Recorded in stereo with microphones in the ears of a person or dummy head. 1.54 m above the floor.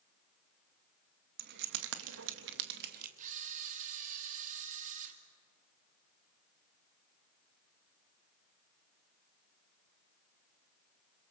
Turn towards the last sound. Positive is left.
turn(degrees=-40)  # may be behind; listen again after turning